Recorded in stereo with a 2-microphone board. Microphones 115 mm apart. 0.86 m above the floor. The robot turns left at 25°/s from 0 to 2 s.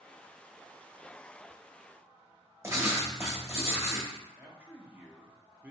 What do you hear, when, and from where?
2.6 s writing: 25° right (ahead or behind), 0.8 m
4.4 s a man speaking: 15° right (ahead or behind), 0.6 m